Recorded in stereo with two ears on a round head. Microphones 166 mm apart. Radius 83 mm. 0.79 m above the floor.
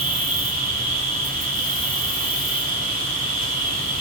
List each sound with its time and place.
0.0 s an insect: 45° right (ahead or behind), 5 m